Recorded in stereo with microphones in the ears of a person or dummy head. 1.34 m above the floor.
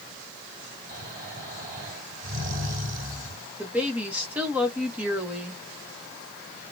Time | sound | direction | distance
0.9 | snoring | 55° right (ahead or behind) | 2 m
3.6 | a woman speaking | 10° right (ahead or behind) | 1.0 m